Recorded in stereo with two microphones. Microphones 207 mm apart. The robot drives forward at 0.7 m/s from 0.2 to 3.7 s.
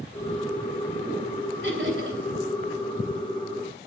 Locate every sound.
1.6 s laughter: 60° right (ahead or behind), 6 m; by 2.2 s 65° right (ahead or behind), 6 m